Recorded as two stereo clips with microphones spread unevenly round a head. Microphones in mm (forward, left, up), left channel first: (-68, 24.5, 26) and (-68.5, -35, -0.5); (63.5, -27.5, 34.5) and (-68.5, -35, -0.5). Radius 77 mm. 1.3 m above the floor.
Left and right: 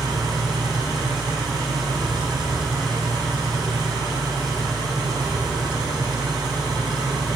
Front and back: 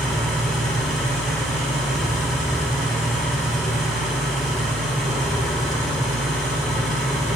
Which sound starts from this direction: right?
An engine running, at 0.0 s.